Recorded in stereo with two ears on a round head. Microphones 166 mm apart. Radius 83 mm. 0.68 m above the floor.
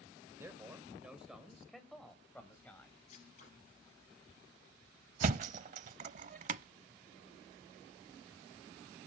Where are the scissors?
40° left (ahead or behind), 4 m.